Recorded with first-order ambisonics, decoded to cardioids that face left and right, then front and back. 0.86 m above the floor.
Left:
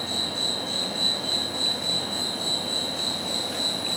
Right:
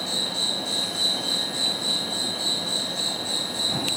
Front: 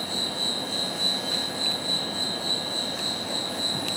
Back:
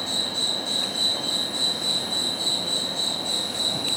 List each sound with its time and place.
0.0 s an insect: 125° right, 2.5 m